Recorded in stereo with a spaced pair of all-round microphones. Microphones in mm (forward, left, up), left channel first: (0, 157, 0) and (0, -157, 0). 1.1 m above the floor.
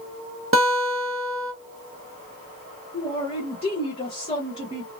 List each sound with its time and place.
0.5 s a guitar: 45° right (ahead or behind), 1.1 m
2.9 s a man speaking: 20° left (ahead or behind), 0.9 m